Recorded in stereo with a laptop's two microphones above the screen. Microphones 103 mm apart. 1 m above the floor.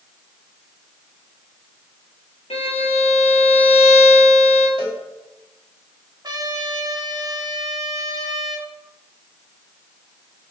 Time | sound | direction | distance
2.5 | a violin | 70° left (ahead or behind) | 1.8 m
4.8 | a cowbell | 55° left (ahead or behind) | 2.5 m
6.2 | a trumpet | 40° right (ahead or behind) | 1.6 m